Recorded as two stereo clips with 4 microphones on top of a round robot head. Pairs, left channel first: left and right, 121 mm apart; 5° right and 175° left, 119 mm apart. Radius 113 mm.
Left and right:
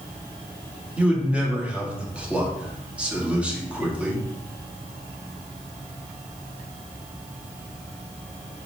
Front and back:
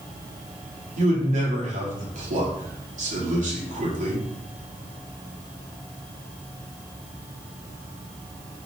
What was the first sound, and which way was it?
A man speaking, 170° right.